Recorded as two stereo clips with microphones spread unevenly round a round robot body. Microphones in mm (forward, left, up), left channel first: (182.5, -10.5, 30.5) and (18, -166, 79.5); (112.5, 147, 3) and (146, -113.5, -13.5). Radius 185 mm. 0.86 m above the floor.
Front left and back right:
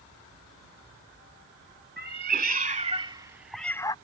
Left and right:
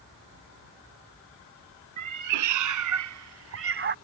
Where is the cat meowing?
100° right; by 4.0 s 35° right.